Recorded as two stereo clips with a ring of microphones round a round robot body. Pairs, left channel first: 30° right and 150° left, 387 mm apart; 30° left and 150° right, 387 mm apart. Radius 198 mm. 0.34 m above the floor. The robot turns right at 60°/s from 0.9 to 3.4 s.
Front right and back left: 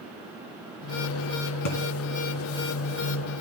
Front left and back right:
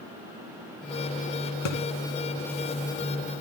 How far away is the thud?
About 2 m.